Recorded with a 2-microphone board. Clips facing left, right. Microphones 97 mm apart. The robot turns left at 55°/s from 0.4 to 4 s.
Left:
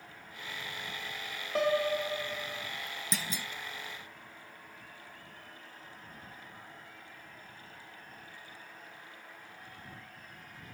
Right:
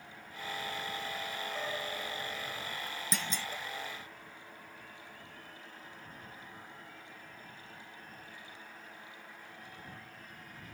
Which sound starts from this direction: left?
A piano, at 1.6 s.